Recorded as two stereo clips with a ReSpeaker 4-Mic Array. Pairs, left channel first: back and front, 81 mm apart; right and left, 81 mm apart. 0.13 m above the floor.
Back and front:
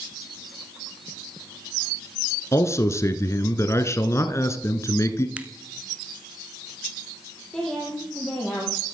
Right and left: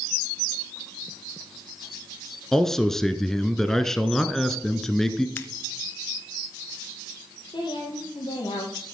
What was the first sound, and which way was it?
A man speaking, 170° right.